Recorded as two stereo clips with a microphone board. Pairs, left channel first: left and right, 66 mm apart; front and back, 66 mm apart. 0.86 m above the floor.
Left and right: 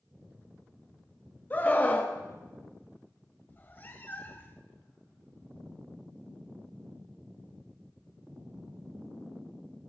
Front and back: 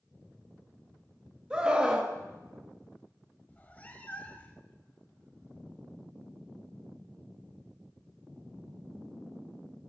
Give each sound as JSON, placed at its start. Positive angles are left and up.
{"t": 1.5, "sound": "a scream", "azimuth_deg": 115, "distance_m": 1.0}
{"t": 3.5, "sound": "a cat meowing", "azimuth_deg": 50, "distance_m": 0.8}